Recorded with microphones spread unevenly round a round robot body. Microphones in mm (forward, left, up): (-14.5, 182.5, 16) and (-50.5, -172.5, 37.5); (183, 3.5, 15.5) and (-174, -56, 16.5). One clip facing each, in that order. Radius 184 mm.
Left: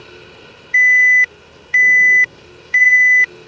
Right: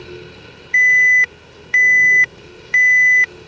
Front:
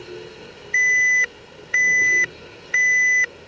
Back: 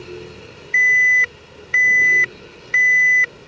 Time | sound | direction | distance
0.7 | an alarm | 90° right | ?